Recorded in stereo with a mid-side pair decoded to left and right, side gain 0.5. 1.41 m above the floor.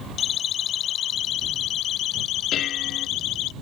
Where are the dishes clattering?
60° left.